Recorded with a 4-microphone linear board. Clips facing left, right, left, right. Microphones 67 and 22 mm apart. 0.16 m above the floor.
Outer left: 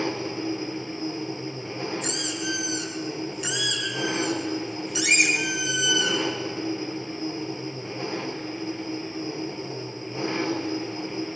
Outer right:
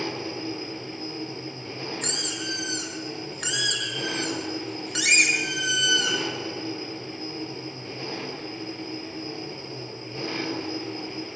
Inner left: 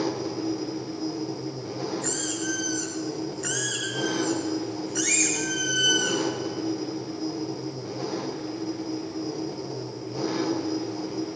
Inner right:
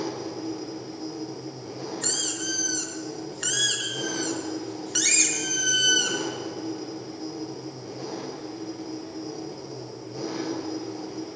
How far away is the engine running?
About 3.5 m.